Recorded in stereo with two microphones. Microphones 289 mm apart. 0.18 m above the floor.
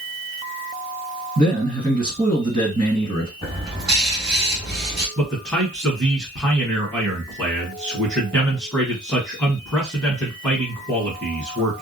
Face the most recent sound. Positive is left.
turn(degrees=-5)  # may be behind; listen again after turning